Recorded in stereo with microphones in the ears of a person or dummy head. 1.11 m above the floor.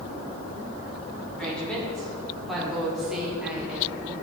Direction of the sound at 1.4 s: 5° left (ahead or behind).